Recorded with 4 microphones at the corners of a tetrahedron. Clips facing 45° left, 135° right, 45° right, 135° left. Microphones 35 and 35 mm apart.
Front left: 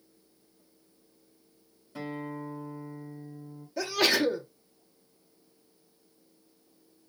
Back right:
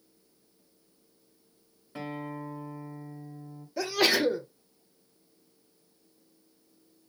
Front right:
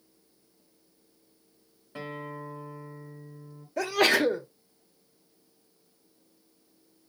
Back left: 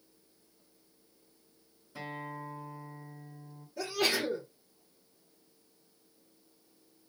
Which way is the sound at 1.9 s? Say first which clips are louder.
Even, front right 3 dB; 80° right.